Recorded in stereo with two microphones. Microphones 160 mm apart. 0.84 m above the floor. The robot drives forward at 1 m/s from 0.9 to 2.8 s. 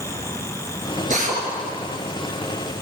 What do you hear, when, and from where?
1.1 s a drill: 50° right (ahead or behind), 7 m